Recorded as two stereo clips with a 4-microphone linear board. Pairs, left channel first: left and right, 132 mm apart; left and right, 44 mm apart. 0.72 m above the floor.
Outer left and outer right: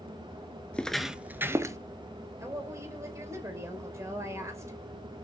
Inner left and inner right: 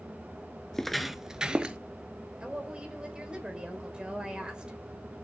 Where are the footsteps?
10° left (ahead or behind), 0.7 m; by 1.8 s 25° right (ahead or behind), 0.9 m.